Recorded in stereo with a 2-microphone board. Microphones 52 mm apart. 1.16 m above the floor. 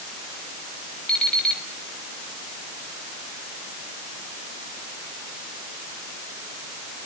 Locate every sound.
1.1 s an alarm clock: 10° left (ahead or behind), 5 m